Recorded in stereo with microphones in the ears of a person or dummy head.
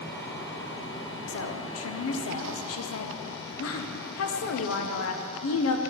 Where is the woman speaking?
70° left (ahead or behind), 0.6 m.